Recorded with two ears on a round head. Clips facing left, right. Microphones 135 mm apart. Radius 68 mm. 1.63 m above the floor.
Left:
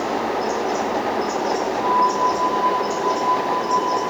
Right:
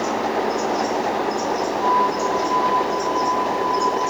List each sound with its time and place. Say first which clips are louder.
1.8 s a flute: left 1 dB; 45° right (ahead or behind), 10 m